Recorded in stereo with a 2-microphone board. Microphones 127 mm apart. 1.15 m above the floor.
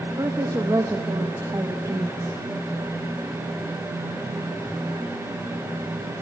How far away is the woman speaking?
About 1.2 m.